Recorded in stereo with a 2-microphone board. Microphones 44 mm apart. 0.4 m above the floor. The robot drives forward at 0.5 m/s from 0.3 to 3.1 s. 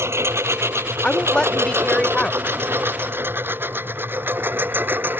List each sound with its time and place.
0.0 s a lawn mower: 85° right; by 5.2 s 55° right (ahead or behind)
1.0 s a woman speaking: 25° left (ahead or behind); by 2.4 s 20° left (ahead or behind)